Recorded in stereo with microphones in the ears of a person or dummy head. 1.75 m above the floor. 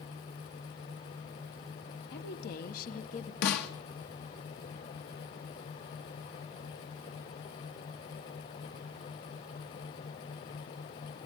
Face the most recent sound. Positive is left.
turn(degrees=55)  # may be behind; listen again after turning